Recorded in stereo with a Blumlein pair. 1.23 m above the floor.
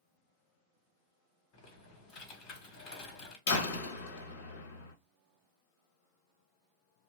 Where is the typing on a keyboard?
35° left, 1.3 m.